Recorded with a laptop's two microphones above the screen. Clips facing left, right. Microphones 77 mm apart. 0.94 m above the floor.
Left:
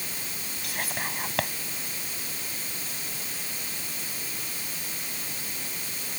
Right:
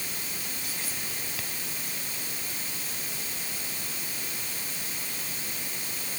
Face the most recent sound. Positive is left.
turn(degrees=65)  # may be behind; listen again after turning